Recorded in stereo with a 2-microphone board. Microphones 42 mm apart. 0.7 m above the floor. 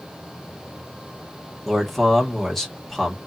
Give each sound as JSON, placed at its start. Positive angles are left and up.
{"t": 1.6, "sound": "a man speaking", "side_deg": 5, "distance_m": 1.4}